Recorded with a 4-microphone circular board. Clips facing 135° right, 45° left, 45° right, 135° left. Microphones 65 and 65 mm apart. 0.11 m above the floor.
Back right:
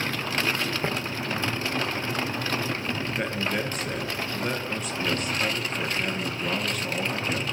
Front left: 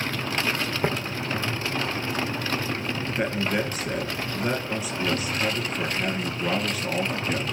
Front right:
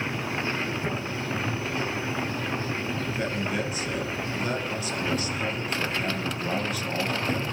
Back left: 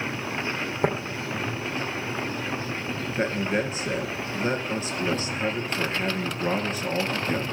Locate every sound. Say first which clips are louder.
0.8 s tapping: front left 5 dB, back left 11 dB; 120° left, 2 m
3.2 s a man speaking: front left 4 dB, back left 6 dB; 125° left, 1.7 m